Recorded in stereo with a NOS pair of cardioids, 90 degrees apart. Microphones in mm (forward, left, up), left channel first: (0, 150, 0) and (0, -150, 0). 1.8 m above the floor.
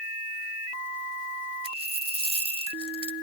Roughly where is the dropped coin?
Ahead.